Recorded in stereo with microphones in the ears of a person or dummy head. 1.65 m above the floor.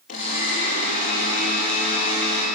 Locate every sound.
0.1 s a blender: 50° left (ahead or behind), 6 m